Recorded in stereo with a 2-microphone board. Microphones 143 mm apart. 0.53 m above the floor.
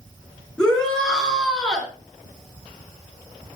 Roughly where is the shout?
Centre.